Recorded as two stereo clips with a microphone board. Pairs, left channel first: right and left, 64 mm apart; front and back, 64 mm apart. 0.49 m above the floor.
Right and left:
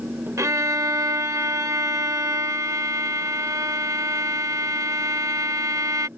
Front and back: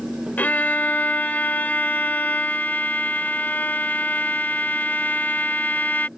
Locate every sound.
0.4 s a violin: 60° left